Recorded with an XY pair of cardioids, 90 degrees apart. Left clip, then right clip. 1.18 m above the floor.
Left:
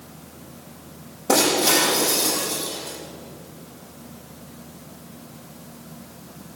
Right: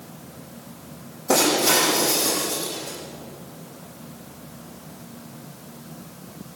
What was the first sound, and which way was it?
Breaking glass, 55° left.